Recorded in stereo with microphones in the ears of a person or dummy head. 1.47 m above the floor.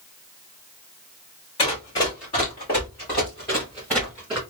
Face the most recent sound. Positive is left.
turn(degrees=-5)  # may be behind; listen again after turning